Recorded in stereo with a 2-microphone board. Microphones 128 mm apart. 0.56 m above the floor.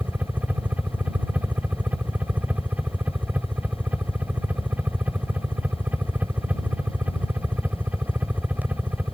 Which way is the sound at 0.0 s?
10° right (ahead or behind).